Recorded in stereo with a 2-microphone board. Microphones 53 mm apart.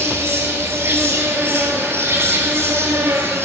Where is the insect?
55° right (ahead or behind), 0.9 m.